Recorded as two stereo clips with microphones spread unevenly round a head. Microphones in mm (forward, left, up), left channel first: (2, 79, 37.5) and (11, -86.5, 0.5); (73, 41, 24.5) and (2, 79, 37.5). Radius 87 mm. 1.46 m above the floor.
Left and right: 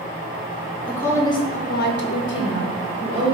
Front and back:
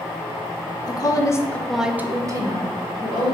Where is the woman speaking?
15° left, 0.7 m; by 3.4 s 135° left, 1.1 m.